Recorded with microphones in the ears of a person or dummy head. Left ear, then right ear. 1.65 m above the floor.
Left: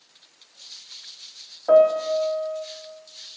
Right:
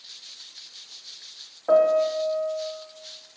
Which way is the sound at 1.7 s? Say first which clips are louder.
Left 2 dB; 10° left (ahead or behind).